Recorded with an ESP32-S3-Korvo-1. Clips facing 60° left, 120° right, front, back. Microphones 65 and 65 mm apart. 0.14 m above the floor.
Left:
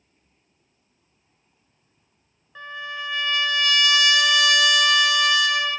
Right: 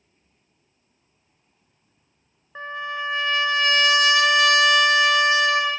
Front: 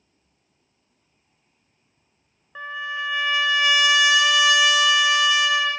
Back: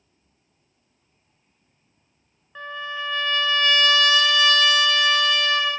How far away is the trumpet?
About 0.7 m.